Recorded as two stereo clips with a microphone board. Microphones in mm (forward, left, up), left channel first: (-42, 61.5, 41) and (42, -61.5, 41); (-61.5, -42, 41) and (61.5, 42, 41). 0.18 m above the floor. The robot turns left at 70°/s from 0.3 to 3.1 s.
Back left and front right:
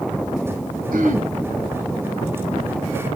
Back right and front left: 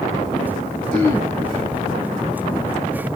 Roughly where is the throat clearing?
Ahead right.